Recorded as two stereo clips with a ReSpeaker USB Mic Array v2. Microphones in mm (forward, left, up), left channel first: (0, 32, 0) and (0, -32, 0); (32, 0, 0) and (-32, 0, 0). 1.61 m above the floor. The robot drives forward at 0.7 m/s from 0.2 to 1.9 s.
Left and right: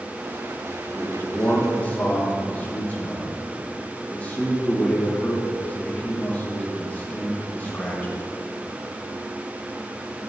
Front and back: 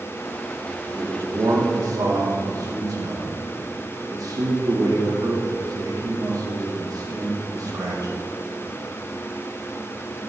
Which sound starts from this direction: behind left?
A man speaking, at 0.9 s.